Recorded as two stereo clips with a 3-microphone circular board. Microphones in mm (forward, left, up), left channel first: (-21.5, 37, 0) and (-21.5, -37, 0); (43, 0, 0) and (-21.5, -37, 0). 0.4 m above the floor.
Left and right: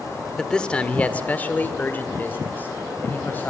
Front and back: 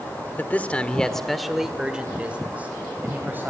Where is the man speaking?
20° left, 1.3 m; by 3.5 s 150° left, 2.5 m.